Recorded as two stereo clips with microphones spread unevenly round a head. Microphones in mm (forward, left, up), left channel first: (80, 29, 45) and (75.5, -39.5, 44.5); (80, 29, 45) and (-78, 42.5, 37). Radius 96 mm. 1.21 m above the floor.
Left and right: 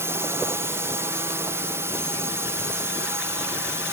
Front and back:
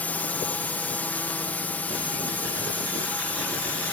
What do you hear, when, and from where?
0.0 s a drone: 85° right